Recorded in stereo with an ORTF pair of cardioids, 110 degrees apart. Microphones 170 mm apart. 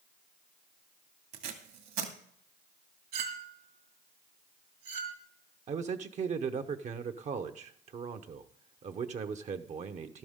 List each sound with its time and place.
1.3 s tape being pulled: 65° right, 2 m
3.1 s a clink: 65° right, 2.5 m
5.7 s a man speaking: 40° right, 0.9 m